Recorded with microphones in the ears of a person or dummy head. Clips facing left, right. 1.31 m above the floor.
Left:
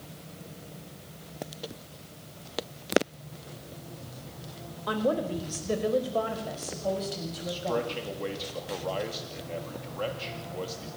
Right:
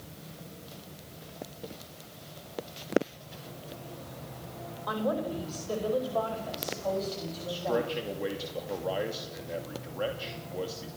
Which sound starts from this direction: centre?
A man speaking, at 7.5 s.